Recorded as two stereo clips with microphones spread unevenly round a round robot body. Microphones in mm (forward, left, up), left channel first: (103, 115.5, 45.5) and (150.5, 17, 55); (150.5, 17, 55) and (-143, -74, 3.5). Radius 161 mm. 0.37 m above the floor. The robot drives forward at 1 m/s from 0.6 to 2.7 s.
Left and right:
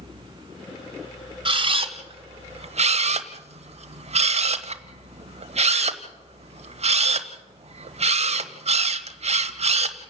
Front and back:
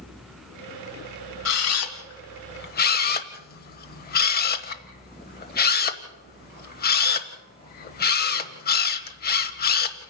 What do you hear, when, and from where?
1.4 s a camera shutter: 20° right, 2.5 m; by 10.0 s 45° right, 1.2 m